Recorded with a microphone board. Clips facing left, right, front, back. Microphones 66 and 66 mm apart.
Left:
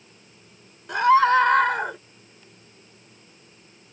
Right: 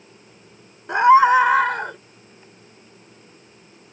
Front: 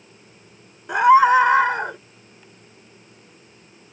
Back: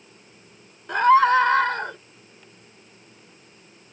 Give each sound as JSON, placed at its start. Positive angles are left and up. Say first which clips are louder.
{"t": 0.9, "sound": "a scream", "louder": "right 4 dB, front 3 dB", "azimuth_deg": -70}